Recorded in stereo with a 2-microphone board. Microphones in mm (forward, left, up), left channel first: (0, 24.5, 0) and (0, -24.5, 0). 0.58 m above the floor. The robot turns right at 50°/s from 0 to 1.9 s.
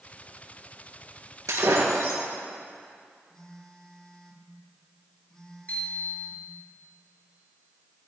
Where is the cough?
No cough in this recording.